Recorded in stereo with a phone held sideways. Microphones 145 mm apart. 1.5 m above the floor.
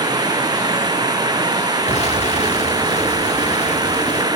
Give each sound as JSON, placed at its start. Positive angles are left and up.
{"t": 0.0, "sound": "running water", "side_deg": -25}
{"t": 1.9, "sound": "an explosion", "side_deg": 50}